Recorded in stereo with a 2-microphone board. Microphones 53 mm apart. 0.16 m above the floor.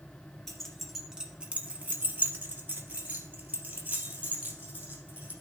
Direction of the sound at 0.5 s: 5° left (ahead or behind).